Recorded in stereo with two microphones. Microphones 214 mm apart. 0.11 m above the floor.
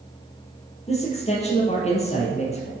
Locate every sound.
0.9 s a man speaking: 30° left (ahead or behind), 3.5 m